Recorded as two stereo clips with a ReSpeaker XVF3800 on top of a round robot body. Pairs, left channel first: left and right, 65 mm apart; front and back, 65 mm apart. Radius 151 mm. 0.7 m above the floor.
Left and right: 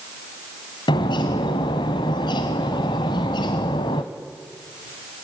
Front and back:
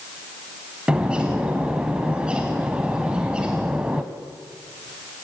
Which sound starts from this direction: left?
A bird, at 0.9 s.